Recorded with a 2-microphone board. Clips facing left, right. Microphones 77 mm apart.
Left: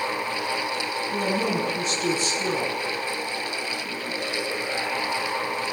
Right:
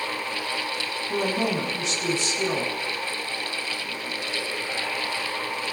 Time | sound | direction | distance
1.1 | a woman speaking | 80° right | 7.5 m